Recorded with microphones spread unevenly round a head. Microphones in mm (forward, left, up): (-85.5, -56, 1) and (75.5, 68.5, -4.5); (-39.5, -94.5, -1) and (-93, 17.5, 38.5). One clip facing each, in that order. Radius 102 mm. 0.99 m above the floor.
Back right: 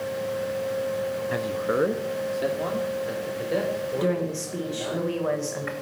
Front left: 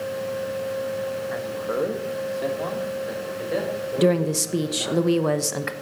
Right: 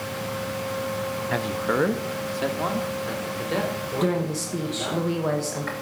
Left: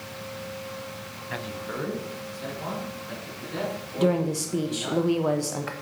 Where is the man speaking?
100° right, 0.6 m; by 5.0 s 50° right, 4.5 m.